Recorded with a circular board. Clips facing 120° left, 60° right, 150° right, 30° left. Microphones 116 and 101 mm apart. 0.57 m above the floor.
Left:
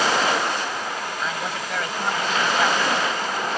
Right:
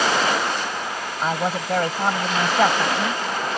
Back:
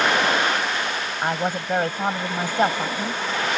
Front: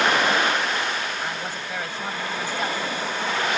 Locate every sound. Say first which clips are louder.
1.2 s a woman speaking: right 9 dB, back 6 dB; 110° right